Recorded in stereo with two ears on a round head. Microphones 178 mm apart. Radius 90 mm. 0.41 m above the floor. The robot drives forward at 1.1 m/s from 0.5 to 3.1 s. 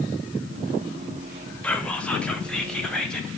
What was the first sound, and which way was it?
Whispering, 5° left (ahead or behind).